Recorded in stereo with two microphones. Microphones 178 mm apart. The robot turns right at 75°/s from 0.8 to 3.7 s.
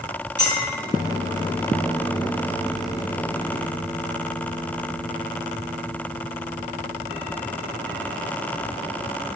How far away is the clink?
About 1.7 m.